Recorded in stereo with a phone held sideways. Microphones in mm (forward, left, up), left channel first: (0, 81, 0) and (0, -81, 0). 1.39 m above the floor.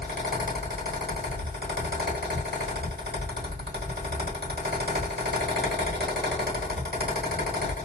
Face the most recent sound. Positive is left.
turn(degrees=-85)